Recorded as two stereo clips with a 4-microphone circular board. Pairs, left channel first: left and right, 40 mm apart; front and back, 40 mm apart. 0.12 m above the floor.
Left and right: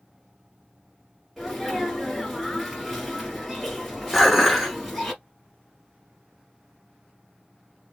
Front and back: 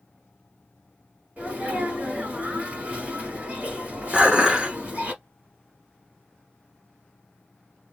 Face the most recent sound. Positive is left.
turn(degrees=180)